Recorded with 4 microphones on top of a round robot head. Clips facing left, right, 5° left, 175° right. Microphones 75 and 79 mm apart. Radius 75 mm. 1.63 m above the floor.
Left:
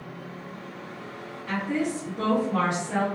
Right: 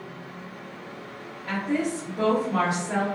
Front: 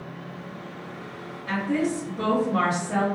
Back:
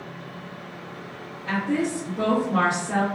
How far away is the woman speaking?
About 1.0 m.